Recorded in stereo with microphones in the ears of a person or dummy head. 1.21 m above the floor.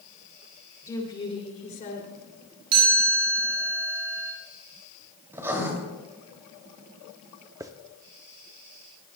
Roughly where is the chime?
Right.